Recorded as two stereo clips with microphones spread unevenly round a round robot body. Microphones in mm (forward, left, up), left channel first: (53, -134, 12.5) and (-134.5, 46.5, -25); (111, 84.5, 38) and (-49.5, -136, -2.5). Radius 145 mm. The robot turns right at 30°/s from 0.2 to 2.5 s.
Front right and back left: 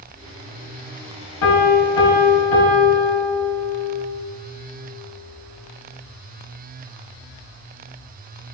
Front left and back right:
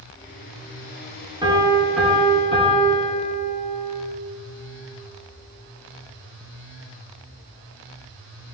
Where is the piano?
50° right, 1.9 m; by 4.0 s 20° right, 1.9 m.